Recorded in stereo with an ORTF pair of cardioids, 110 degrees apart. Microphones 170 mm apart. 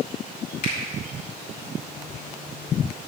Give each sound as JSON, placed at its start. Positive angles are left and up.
{"t": 0.6, "sound": "a finger snap", "azimuth_deg": 65, "distance_m": 5.0}